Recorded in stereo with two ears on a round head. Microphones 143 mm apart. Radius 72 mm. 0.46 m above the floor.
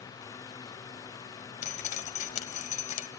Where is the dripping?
50° left (ahead or behind), 1.3 m.